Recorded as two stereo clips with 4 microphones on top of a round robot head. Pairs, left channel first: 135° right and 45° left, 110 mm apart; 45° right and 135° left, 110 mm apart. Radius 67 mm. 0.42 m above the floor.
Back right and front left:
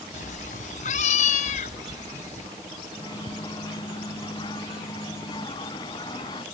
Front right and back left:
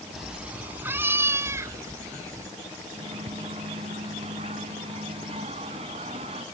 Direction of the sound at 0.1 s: 135° right.